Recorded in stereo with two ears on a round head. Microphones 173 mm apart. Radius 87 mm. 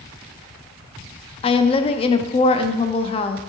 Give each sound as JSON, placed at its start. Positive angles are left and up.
{"t": 1.4, "sound": "a woman speaking", "side_deg": 30, "distance_m": 0.6}